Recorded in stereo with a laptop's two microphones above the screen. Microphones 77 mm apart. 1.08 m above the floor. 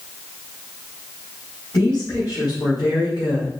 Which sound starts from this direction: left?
A woman speaking, at 1.7 s.